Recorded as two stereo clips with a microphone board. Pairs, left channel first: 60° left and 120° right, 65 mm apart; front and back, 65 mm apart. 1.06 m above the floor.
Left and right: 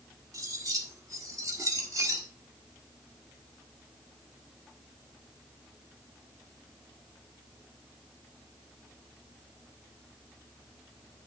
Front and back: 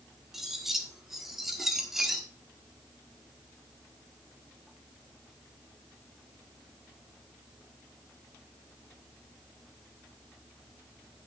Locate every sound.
0.3 s cutlery clinking: 95° right, 1.4 m